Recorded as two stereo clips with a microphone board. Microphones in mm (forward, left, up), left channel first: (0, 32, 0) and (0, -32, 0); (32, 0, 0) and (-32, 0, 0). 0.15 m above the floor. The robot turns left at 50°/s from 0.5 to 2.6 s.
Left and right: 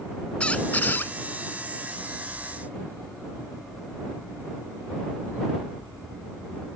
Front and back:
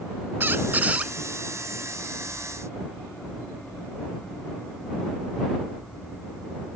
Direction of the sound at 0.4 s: 150° left.